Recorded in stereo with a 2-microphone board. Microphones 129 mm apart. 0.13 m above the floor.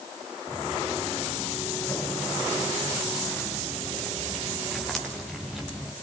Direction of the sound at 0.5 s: 25° left (ahead or behind).